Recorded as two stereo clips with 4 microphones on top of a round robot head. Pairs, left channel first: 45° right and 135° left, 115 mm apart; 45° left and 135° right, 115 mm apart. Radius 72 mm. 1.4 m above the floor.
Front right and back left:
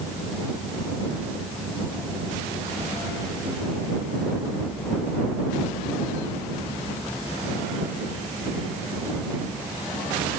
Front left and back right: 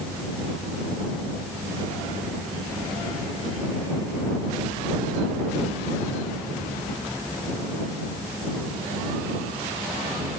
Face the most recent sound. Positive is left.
No sound to turn to.